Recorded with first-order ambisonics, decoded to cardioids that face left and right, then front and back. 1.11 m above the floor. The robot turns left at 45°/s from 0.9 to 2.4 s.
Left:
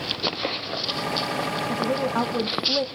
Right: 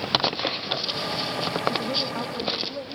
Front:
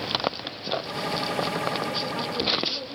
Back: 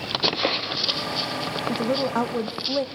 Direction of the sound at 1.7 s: 175° left.